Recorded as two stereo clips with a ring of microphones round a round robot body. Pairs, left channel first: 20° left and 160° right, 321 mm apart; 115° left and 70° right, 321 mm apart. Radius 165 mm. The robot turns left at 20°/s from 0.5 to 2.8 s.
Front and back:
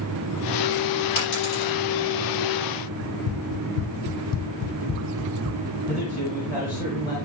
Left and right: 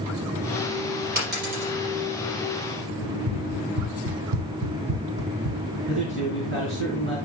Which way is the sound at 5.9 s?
15° right.